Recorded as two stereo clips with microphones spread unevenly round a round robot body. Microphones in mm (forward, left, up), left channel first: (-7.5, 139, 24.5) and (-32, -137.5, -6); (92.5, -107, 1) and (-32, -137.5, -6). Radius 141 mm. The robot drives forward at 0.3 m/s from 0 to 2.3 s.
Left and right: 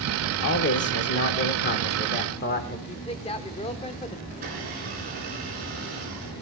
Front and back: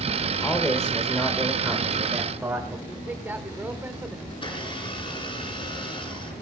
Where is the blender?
35° right, 5.5 m.